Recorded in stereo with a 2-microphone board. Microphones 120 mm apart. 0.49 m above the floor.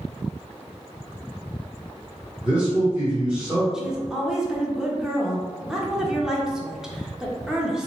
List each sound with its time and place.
2.4 s a man speaking: 10° right (ahead or behind), 1.0 m
3.7 s a woman speaking: 5° right (ahead or behind), 0.8 m